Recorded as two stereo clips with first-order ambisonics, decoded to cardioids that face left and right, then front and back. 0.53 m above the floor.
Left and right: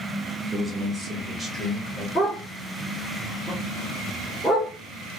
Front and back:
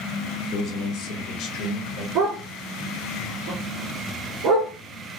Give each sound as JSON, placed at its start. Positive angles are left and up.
{"t": 0.5, "sound": "a man speaking", "azimuth_deg": -5, "distance_m": 0.9}
{"t": 2.1, "sound": "a dog barking", "azimuth_deg": 175, "distance_m": 2.5}